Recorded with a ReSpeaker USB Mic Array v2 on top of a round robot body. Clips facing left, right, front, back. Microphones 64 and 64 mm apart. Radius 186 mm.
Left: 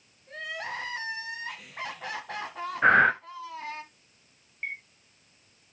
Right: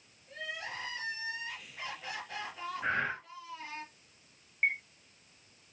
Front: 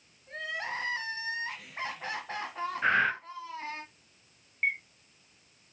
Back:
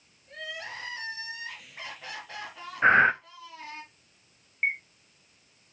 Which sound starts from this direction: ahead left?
Crying, at 0.3 s.